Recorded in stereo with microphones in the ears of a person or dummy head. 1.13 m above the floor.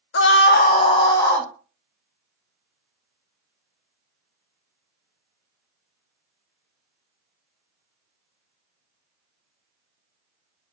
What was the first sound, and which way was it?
A scream, 55° left (ahead or behind).